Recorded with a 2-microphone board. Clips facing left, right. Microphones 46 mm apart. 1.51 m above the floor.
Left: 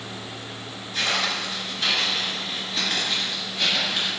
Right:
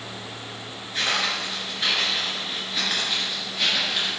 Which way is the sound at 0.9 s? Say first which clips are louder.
Even; 20° right (ahead or behind).